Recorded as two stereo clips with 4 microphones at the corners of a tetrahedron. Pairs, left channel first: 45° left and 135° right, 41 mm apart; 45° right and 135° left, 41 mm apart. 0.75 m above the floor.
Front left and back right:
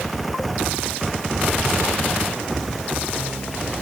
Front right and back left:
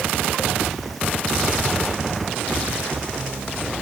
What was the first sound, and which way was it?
Only background noise.